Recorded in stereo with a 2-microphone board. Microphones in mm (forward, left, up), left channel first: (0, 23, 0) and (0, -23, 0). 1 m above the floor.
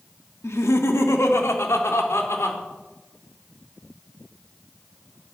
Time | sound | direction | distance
0.4 | laughter | 80° left | 1.5 m